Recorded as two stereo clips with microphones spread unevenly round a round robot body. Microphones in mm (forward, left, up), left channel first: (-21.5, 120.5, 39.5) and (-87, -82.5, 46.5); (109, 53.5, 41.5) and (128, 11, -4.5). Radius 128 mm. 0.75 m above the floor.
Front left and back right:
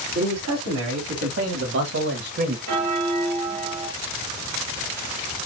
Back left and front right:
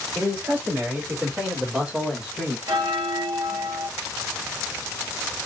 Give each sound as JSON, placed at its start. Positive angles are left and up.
{"t": 0.1, "sound": "a man speaking", "azimuth_deg": -95, "distance_m": 3.0}
{"t": 2.7, "sound": "a bell", "azimuth_deg": -75, "distance_m": 0.9}